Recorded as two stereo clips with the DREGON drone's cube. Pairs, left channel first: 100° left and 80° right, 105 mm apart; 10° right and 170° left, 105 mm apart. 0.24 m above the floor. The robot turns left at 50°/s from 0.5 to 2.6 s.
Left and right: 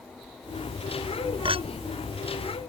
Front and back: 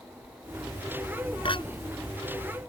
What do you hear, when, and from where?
1.4 s a clink: 45° right; by 1.6 s 55° right